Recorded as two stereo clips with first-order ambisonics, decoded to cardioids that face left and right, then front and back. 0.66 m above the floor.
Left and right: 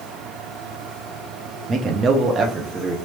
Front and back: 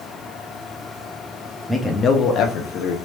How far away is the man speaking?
About 0.5 m.